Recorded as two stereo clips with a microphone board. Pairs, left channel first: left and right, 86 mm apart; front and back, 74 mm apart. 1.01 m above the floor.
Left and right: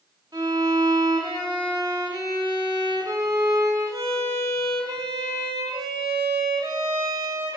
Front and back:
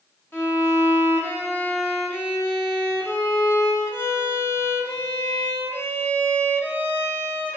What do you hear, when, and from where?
0.3 s a violin: 55° right, 1.4 m